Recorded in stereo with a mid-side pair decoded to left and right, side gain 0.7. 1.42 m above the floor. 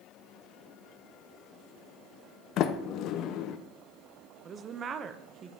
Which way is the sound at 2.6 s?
55° left.